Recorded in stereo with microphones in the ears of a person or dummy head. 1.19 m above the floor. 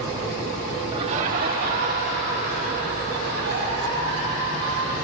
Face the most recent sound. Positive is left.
turn(degrees=-65)  # may be behind; listen again after turning